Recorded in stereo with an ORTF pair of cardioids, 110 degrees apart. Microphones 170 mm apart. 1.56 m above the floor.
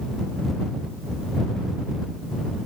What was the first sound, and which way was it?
Only background noise.